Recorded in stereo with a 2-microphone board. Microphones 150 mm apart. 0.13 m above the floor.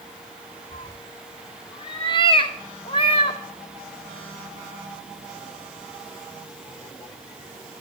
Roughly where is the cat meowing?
Left.